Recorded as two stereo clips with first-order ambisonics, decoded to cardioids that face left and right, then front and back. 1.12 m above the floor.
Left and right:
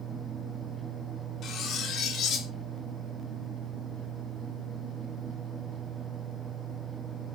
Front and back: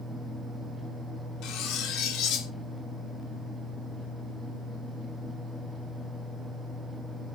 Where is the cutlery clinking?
35° left, 0.5 m.